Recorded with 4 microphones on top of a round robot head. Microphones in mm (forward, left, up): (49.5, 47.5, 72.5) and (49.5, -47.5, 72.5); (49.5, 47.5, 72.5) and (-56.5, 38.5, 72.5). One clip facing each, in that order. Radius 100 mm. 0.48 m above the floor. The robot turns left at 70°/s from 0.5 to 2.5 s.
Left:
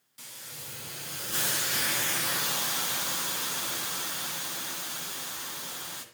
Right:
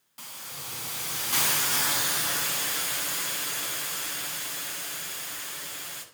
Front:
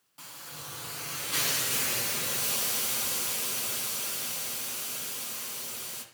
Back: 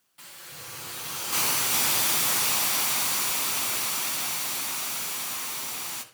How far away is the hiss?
About 2.5 m.